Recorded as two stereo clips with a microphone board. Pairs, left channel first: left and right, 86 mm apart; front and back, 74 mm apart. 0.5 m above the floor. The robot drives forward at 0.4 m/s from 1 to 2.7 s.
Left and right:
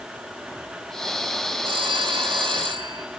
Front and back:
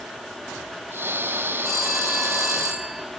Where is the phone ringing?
90° right, 4 m; by 3.0 s 95° right, 4 m.